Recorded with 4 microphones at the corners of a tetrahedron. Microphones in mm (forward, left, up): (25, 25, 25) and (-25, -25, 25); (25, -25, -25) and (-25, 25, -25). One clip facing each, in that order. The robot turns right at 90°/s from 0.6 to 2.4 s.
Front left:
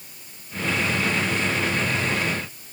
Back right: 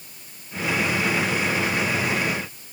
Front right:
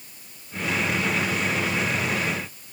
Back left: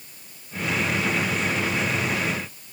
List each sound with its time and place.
Only background noise.